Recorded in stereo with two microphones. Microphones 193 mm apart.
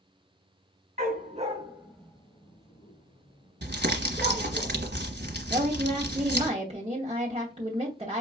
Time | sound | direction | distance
1.0 | a dog barking | 55° right (ahead or behind) | 1.0 m
3.6 | crumpling | 70° right (ahead or behind) | 1.1 m
5.5 | a woman speaking | 30° right (ahead or behind) | 0.9 m